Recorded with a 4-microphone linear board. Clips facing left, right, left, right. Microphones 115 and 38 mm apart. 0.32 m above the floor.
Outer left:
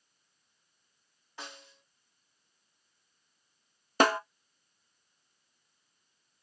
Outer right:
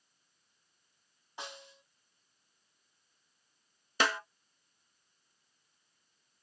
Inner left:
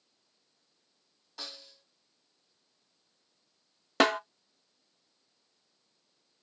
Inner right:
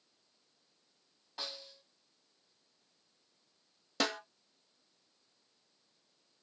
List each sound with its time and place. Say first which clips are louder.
1.4 s a snare drum: outer right 1 dB, inner right 1 dB; 20° right (ahead or behind), 1.7 m
4.0 s a snare drum: outer left 7 dB, inner left 10 dB; 45° left (ahead or behind), 0.5 m